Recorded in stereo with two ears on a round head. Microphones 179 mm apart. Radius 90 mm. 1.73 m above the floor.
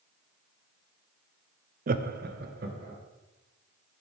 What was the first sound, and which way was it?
Laughter, 40° right (ahead or behind).